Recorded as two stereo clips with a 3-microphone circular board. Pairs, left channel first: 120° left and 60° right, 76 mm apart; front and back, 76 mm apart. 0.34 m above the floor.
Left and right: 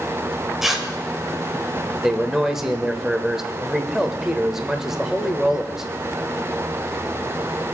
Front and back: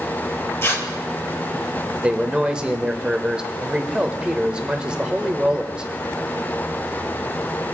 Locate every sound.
0.6 s tearing paper: 25° left, 1.4 m
2.0 s a man speaking: 135° right, 0.9 m